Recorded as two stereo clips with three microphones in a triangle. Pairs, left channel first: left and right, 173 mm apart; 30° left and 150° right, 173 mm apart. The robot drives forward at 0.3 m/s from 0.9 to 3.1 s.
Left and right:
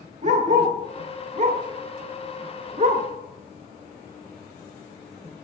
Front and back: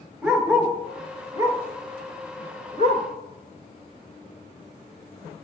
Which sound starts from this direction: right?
A dog barking, at 0.2 s.